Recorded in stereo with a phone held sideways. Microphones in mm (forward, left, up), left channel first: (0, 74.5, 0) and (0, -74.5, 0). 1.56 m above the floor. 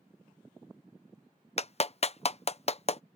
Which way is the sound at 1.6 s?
45° left (ahead or behind).